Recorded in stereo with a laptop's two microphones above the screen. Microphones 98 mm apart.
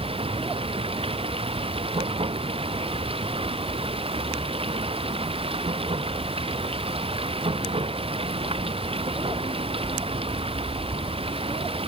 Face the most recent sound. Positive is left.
turn(degrees=-65)  # may be behind; listen again after turning